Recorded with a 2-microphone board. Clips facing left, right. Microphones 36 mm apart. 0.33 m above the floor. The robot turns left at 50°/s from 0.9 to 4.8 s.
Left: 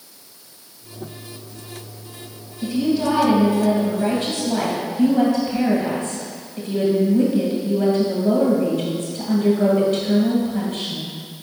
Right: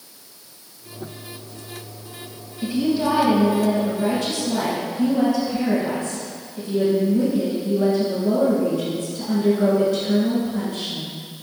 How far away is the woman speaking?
About 2 m.